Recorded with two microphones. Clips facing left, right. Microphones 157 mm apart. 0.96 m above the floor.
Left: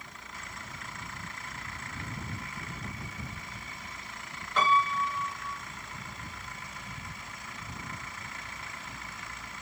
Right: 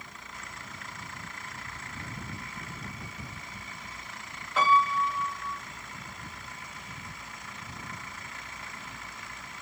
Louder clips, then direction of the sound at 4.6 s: Right 2 dB; 5° right (ahead or behind).